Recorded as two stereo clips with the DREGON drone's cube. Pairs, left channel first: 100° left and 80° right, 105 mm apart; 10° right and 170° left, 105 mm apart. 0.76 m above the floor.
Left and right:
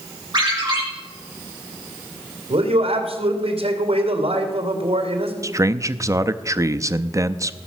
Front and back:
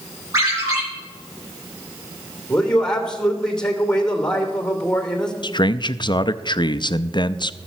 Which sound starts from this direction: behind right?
A ringtone, at 0.3 s.